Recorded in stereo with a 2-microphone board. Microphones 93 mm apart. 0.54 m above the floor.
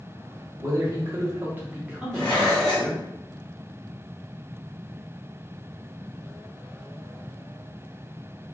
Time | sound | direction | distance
0.6 | a man speaking | 35° right (ahead or behind) | 1.1 m
2.1 | dishes clattering | 50° left (ahead or behind) | 1.7 m